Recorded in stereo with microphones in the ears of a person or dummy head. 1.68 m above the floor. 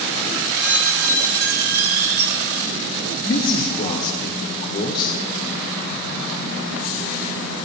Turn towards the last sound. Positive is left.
turn(degrees=40)  # may be behind; listen again after turning